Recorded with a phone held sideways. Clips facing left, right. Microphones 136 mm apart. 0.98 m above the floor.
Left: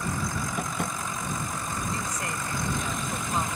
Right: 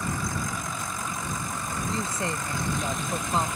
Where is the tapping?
70° left (ahead or behind).